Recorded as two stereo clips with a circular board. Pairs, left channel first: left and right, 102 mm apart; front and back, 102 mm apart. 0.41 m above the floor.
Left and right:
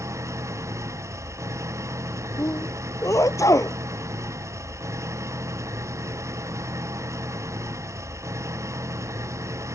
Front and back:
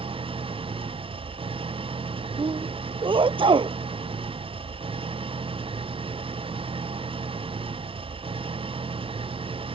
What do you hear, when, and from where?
0.0 s an engine running: 150° right
2.4 s a sneeze: 150° left